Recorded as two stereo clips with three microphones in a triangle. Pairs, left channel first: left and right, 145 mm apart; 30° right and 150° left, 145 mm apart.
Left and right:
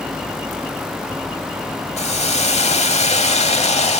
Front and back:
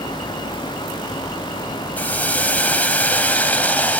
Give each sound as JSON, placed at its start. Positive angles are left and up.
{"t": 2.0, "sound": "a hiss", "azimuth_deg": 50, "distance_m": 1.0}